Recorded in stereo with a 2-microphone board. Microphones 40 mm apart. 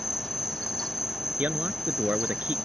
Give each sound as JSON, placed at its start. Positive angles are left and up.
{"t": 0.0, "sound": "an insect", "side_deg": -5}
{"t": 1.4, "sound": "a man speaking", "side_deg": -40}